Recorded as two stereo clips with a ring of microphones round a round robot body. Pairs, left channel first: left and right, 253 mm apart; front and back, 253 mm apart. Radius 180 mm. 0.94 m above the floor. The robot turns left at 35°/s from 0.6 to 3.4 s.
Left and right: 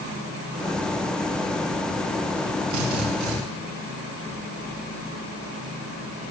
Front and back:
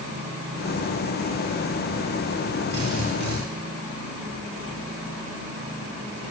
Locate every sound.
2.7 s a drill: 115° right, 6.5 m; by 3.4 s 135° right, 6.5 m